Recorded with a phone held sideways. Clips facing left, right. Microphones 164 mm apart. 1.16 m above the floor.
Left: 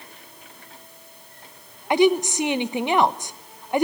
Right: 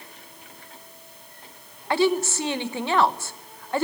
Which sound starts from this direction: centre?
A woman speaking, at 1.9 s.